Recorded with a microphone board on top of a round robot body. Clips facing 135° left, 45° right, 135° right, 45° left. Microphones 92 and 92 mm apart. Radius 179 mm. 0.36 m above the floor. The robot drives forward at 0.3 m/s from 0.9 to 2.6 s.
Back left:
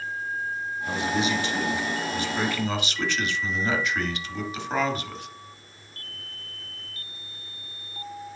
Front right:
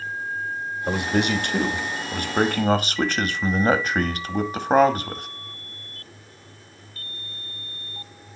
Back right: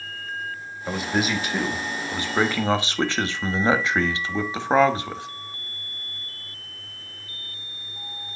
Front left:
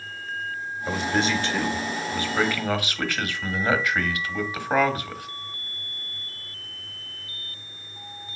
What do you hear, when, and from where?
0.9 s a man speaking: 50° right, 1.3 m; by 5.3 s 75° right, 1.1 m